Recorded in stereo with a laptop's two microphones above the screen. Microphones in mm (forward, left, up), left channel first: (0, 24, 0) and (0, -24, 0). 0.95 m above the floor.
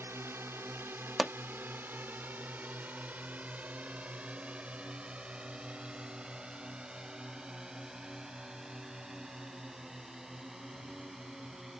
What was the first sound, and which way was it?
A drone, 60° right (ahead or behind).